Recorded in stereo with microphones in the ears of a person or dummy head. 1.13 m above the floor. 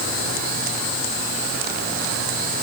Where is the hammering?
No hammering in this recording.